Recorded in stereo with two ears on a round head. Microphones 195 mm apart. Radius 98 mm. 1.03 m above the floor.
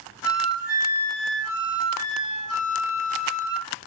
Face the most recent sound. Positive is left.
turn(degrees=70)  # may be behind; listen again after turning